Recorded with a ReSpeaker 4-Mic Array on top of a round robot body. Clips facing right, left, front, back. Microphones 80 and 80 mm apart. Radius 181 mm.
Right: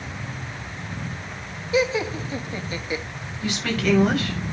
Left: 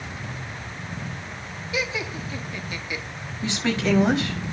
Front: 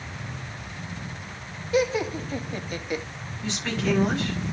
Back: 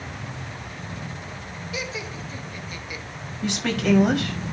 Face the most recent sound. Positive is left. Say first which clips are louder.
# even, back 4 dB
turn(degrees=155)